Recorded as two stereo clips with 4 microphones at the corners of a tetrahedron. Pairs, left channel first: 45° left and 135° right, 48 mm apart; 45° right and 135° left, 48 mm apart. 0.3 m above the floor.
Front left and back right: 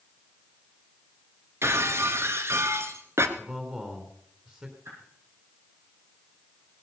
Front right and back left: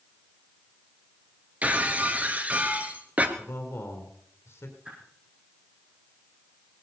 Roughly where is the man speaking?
Right.